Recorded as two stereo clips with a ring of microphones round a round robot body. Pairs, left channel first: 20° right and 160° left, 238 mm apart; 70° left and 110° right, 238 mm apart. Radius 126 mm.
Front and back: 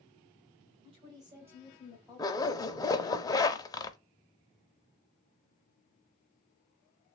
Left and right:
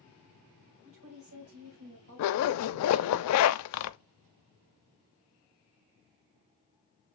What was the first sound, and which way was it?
A woman speaking, 140° right.